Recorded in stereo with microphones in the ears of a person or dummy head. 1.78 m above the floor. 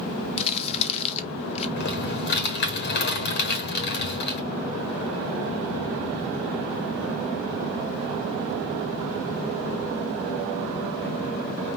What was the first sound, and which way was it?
Crumpling, 35° left (ahead or behind).